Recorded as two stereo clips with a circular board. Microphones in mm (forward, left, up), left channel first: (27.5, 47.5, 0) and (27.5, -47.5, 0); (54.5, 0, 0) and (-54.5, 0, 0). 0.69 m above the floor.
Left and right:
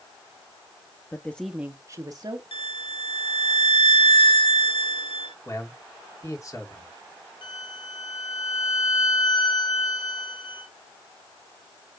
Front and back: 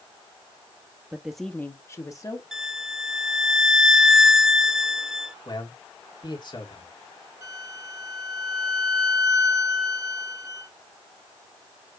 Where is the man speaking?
40° left, 1.8 m.